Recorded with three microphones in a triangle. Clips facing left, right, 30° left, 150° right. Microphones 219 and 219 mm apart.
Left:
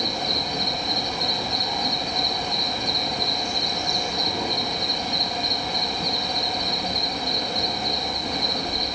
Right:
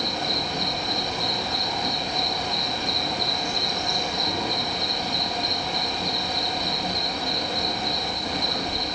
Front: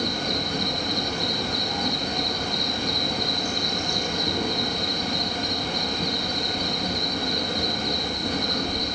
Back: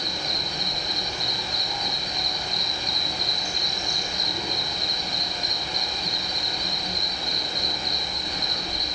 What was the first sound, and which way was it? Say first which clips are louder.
An insect: even, front 7 dB; straight ahead.